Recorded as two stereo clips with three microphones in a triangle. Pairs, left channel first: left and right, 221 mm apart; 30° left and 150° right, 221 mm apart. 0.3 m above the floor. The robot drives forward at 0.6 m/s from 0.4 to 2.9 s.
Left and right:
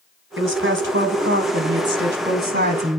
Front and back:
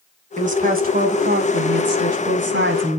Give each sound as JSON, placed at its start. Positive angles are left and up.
{"t": 0.4, "sound": "a woman speaking", "azimuth_deg": -100, "distance_m": 2.5}